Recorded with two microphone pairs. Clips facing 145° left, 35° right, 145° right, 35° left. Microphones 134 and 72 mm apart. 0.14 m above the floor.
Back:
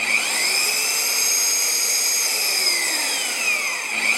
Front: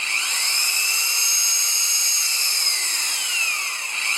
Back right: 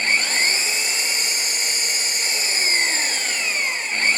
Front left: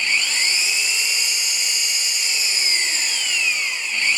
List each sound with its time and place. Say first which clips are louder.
0.0 s an engine running: back 5 dB, back right 2 dB; 170° left, 0.8 m